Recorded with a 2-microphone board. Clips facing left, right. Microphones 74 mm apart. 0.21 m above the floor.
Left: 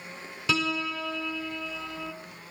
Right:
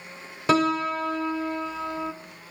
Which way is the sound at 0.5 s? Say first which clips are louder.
Right 7 dB; 45° right (ahead or behind).